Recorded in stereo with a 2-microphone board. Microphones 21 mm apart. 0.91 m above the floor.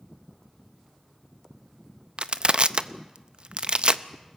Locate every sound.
2.2 s crushing: 55° right (ahead or behind), 0.6 m